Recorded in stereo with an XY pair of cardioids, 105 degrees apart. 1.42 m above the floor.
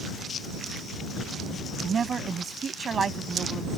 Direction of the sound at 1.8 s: 40° right.